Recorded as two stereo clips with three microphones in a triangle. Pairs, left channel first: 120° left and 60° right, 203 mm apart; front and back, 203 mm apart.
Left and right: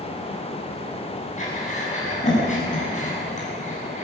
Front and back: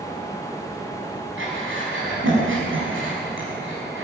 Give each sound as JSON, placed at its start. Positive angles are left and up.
{"t": 1.4, "sound": "breathing", "azimuth_deg": 170, "distance_m": 6.5}